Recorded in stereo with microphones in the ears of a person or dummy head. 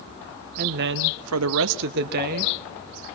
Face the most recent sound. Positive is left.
turn(degrees=-35)  # may be behind; listen again after turning